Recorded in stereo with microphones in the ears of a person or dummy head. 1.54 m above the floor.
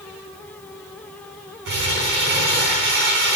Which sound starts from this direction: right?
Crumpling, at 1.6 s.